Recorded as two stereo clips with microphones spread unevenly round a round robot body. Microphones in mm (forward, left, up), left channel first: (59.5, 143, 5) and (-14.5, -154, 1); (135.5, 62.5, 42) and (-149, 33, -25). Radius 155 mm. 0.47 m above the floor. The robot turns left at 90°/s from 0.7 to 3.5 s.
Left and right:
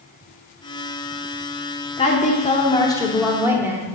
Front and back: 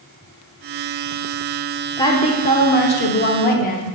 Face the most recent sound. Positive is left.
turn(degrees=-35)